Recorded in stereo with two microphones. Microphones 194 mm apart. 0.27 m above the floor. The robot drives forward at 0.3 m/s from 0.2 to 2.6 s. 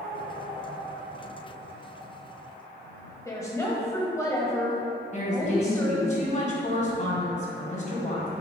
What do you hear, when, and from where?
3.2 s a woman speaking: 15° left (ahead or behind), 1.1 m
5.1 s a woman speaking: 40° left (ahead or behind), 1.8 m